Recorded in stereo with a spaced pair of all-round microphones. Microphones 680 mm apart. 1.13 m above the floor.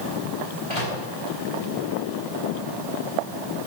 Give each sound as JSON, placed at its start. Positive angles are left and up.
{"t": 0.7, "sound": "a microwave", "side_deg": 50, "distance_m": 6.5}